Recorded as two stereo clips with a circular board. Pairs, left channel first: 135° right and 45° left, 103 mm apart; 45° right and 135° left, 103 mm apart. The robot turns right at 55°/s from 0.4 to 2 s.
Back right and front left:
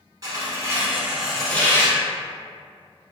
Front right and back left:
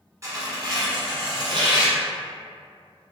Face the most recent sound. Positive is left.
turn(degrees=175)